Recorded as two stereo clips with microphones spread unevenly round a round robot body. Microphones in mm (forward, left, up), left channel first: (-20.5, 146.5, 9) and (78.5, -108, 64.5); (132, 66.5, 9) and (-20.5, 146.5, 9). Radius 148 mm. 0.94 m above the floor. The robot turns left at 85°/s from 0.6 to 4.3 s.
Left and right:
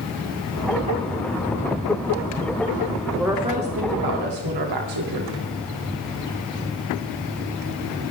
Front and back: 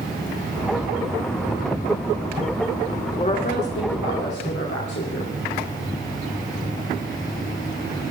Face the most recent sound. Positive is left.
turn(degrees=-70)